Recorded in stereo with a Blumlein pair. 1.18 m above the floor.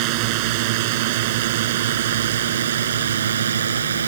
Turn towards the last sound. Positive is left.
turn(degrees=-70)